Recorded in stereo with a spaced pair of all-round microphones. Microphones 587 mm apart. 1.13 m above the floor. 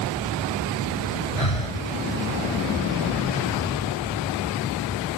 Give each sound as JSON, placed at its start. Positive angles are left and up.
{"t": 1.4, "sound": "breathing", "side_deg": 60}